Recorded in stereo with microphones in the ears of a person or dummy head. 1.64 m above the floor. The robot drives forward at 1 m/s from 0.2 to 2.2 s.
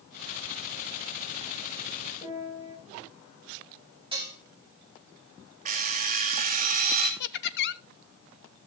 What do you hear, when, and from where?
2.2 s a piano: 40° left (ahead or behind), 8 m
4.1 s dishes clattering: 25° right (ahead or behind), 2.5 m
5.7 s an alarm clock: 45° right (ahead or behind), 2.0 m
7.2 s laughter: 60° left (ahead or behind), 0.7 m